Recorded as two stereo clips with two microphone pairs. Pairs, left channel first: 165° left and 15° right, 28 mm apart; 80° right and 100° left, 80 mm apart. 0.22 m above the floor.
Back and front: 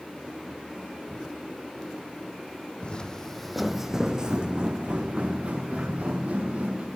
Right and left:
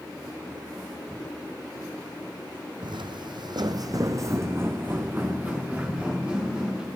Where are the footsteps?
115° left, 0.6 m; by 6.9 s 20° left, 1.9 m.